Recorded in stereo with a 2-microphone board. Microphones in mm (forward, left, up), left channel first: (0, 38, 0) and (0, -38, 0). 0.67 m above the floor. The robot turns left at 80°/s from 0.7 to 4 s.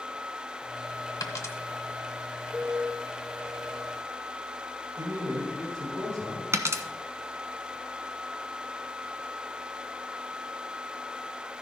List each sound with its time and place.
1.2 s a dropped coin: 65° left (ahead or behind), 1.2 m; by 1.6 s 35° left (ahead or behind), 1.2 m
2.5 s a piano: 10° left (ahead or behind), 4.5 m; by 3.9 s 80° right, 4.5 m
5.0 s a man speaking: 55° right (ahead or behind), 4.5 m
6.5 s a dropped coin: 40° right (ahead or behind), 0.9 m